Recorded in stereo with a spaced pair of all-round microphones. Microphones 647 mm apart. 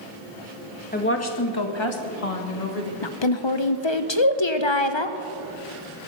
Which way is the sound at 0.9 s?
15° left (ahead or behind).